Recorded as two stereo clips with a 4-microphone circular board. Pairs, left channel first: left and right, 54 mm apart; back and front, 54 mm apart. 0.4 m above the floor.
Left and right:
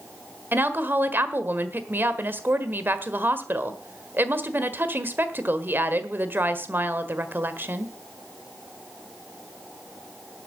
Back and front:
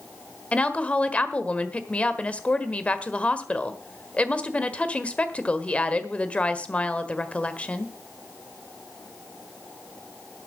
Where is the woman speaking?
120° right, 1.3 m.